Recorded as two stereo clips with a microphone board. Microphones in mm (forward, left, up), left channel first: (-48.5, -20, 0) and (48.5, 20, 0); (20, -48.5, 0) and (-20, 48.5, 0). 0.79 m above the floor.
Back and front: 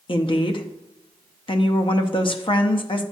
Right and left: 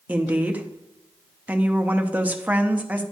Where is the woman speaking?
175° right, 0.6 m.